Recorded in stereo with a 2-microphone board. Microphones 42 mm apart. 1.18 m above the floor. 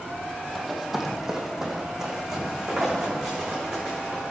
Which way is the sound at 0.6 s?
5° left (ahead or behind).